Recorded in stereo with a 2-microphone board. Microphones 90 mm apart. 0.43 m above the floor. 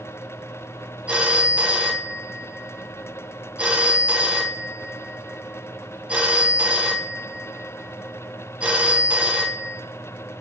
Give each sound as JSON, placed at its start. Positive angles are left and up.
{"t": 1.1, "sound": "a phone ringing", "side_deg": -15, "distance_m": 2.0}